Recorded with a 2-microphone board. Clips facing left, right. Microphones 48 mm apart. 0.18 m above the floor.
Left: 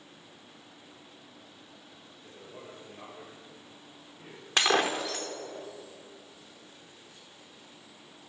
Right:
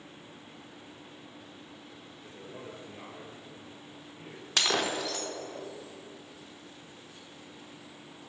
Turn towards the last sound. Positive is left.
turn(degrees=20)  # may be behind; listen again after turning